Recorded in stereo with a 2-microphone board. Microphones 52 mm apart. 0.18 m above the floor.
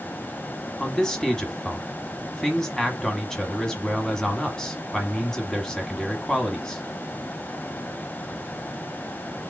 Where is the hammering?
I don't hear hammering.